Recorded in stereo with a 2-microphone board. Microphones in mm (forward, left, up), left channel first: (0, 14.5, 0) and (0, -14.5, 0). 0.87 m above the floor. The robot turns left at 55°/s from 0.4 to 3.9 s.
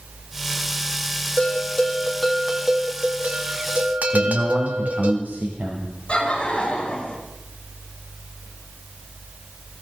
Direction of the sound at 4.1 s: 70° right (ahead or behind).